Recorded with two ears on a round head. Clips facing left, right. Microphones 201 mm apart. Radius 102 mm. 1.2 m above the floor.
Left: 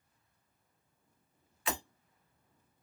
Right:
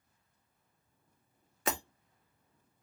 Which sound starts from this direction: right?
Breaking glass, at 1.7 s.